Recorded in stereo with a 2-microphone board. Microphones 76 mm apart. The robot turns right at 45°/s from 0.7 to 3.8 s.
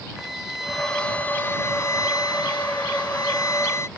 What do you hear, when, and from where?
0.2 s a violin: straight ahead; by 3.9 s 140° left